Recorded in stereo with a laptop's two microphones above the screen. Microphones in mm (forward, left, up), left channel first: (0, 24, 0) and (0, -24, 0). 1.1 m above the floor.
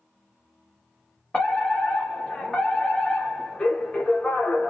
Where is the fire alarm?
20° left (ahead or behind), 1.5 m.